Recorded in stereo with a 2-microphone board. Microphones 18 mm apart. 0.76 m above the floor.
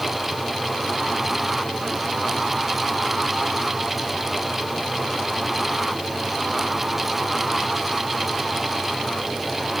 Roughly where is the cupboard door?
I don't hear a cupboard door.